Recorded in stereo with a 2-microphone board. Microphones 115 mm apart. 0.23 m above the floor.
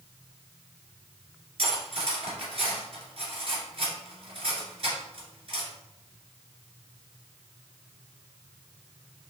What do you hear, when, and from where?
1.6 s cutlery clinking: 55° right (ahead or behind), 2 m